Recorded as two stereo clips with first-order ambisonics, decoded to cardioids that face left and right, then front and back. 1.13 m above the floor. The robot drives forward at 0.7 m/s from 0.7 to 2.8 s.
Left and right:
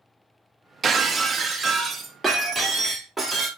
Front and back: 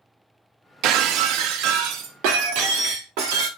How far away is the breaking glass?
About 0.7 m.